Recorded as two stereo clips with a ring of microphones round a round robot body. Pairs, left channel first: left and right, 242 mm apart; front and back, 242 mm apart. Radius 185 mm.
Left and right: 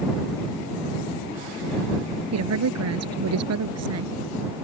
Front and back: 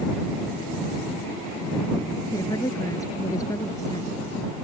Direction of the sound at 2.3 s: 80° right.